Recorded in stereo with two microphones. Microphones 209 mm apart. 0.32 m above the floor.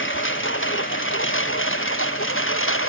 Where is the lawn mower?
70° left (ahead or behind); by 2.9 s 80° left.